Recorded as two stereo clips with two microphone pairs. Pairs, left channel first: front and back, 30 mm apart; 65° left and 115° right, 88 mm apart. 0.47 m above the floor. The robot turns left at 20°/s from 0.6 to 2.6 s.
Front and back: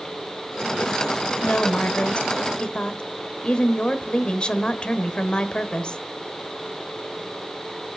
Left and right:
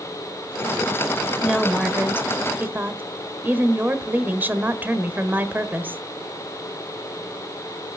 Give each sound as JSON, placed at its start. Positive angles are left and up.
{"t": 1.4, "sound": "a woman speaking", "azimuth_deg": -30, "distance_m": 1.4}